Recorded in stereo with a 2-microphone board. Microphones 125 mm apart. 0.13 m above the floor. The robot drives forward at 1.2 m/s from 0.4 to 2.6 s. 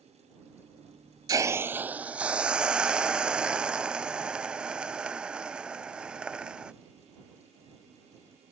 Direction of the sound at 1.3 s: 35° right (ahead or behind).